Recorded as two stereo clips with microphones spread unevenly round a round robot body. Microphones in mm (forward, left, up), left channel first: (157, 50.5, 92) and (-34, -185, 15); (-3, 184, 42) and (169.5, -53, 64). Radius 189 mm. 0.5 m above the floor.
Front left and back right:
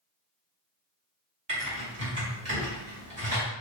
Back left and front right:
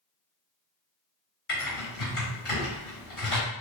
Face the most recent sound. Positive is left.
turn(degrees=175)